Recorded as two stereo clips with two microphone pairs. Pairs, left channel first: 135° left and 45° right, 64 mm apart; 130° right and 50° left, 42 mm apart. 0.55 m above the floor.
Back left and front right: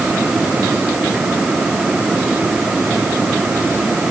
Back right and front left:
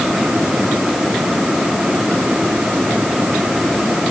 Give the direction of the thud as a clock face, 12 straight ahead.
No thud in this recording.